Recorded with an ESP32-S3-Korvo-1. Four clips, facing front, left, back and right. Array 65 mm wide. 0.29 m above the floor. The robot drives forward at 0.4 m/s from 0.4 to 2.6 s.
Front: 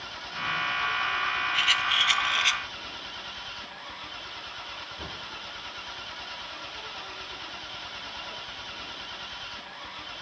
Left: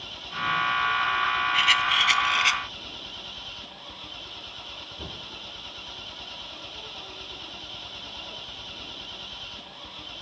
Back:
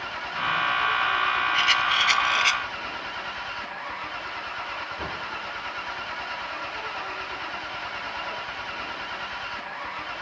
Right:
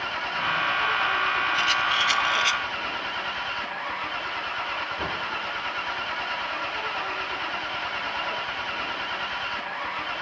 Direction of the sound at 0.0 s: 115° right.